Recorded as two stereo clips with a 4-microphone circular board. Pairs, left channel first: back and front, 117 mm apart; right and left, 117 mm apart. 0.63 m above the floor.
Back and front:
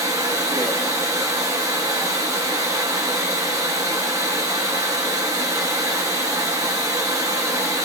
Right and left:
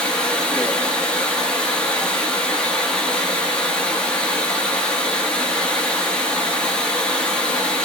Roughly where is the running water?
Ahead.